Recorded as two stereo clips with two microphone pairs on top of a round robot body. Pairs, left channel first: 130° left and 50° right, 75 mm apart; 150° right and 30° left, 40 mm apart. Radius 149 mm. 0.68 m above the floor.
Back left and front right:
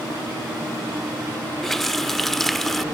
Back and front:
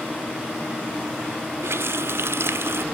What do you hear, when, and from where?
1.6 s a running tap: 45° left